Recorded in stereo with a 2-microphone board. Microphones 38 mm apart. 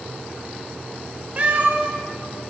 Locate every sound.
1.4 s a cat meowing: 40° right (ahead or behind), 0.8 m